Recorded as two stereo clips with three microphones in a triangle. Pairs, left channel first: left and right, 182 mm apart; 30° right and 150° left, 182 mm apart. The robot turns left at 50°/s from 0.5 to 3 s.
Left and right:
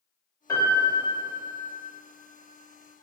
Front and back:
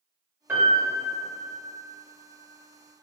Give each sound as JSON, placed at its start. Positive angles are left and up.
{"t": 0.5, "sound": "a piano", "azimuth_deg": 100, "distance_m": 1.0}